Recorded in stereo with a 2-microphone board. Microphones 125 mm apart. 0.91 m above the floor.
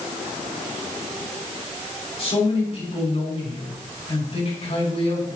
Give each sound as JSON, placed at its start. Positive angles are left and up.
{"t": 2.2, "sound": "a man speaking", "side_deg": 50, "distance_m": 5.5}